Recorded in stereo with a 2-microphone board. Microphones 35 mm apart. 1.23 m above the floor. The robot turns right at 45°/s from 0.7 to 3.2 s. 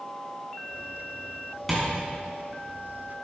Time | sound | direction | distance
1.7 | tapping | centre (ahead or behind) | 4 m